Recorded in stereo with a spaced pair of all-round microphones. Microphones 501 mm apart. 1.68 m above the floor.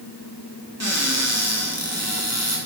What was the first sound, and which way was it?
A cupboard door, 30° right (ahead or behind).